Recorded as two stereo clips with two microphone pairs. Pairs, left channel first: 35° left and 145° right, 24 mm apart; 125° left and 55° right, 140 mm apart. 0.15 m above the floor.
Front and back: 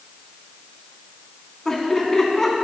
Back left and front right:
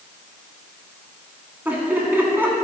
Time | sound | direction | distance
1.6 | laughter | straight ahead | 1.7 m